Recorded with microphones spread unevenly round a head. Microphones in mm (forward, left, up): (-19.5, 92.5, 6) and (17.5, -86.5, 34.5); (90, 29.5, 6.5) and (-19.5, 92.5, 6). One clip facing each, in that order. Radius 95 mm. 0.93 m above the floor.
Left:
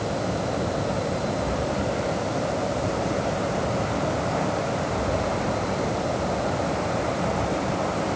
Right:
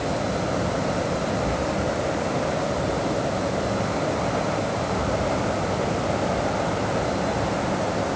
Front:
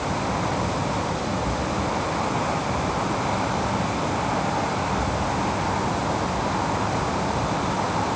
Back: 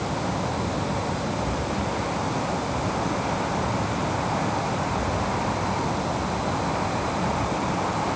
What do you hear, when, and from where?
Only background noise.